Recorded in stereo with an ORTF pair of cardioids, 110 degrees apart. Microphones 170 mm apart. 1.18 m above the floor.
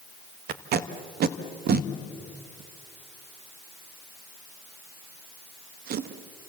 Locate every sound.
0.5 s tape being pulled: 60° right, 1.3 m